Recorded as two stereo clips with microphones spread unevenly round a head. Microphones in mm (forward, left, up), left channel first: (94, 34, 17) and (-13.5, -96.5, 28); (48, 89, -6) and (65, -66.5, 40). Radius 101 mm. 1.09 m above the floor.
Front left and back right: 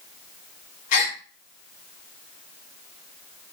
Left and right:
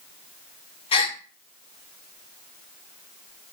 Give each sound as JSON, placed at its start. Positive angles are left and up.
{"t": 0.9, "sound": "a gasp", "azimuth_deg": 45, "distance_m": 0.8}